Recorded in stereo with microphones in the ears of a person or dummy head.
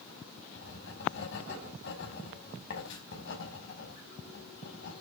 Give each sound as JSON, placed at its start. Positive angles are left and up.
{"t": 0.6, "sound": "writing", "side_deg": 70, "distance_m": 4.5}